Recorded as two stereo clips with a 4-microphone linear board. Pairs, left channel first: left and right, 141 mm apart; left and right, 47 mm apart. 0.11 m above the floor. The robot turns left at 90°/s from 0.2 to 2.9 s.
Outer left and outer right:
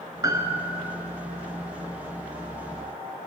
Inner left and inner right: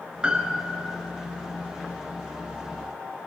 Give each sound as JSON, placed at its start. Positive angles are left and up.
{"t": 0.2, "sound": "a piano", "side_deg": -25, "distance_m": 0.8}